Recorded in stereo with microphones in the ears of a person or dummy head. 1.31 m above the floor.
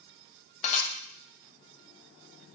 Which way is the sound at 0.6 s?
40° left (ahead or behind).